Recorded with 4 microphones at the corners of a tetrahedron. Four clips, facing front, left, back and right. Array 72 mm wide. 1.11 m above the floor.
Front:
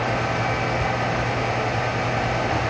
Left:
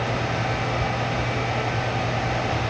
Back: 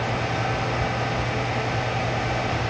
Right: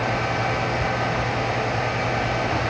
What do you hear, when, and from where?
Only background noise.